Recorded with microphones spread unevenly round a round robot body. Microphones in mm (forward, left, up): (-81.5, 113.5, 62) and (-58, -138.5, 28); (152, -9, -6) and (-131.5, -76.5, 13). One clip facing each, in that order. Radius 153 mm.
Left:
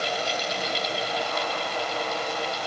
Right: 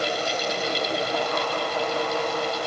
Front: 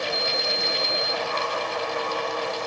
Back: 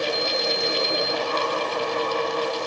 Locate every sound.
Only background noise.